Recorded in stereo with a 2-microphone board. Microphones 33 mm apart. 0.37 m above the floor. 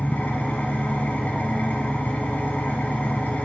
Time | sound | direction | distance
0.0 | an engine running | 65° left (ahead or behind) | 1.7 m